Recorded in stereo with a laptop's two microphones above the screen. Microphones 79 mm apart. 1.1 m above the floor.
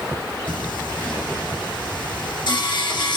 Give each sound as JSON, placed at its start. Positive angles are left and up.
{"t": 0.5, "sound": "singing", "side_deg": 75, "distance_m": 2.5}